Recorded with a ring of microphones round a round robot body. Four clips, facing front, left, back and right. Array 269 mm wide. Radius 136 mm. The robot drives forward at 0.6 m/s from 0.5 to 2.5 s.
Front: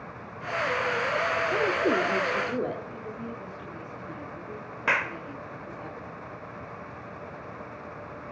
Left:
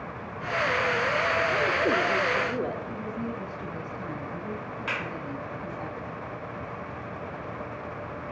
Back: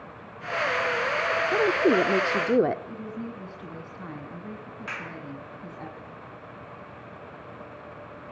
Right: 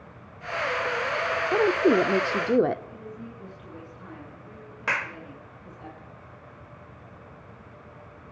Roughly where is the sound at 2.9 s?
Behind left.